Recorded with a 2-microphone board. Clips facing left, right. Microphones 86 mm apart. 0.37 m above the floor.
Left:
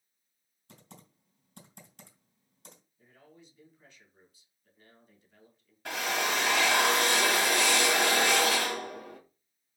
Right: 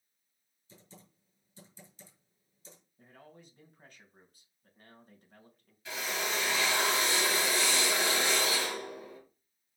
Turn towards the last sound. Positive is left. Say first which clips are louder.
# left 5 dB
turn(degrees=60)  # may be behind; listen again after turning